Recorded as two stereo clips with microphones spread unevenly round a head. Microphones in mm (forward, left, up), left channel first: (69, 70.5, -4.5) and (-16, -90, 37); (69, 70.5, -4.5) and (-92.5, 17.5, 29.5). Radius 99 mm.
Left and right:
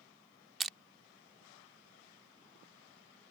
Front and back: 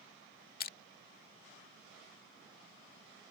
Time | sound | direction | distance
0.6 | crushing | 35° right | ?